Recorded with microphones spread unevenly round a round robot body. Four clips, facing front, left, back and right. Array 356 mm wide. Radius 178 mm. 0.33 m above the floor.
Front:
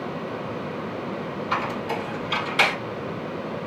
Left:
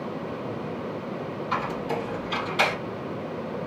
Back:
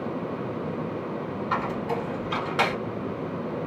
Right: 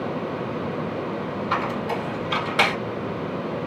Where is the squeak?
115° right, 1.7 m.